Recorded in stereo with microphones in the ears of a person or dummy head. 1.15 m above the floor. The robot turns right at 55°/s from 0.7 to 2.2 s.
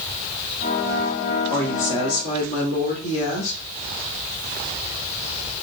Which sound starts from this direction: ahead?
A woman speaking, at 1.5 s.